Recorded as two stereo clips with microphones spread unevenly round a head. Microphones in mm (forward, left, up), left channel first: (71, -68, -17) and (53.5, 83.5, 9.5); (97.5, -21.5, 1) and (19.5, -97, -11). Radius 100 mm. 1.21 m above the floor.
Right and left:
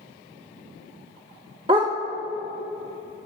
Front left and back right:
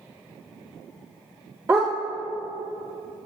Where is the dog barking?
145° left, 1.2 m.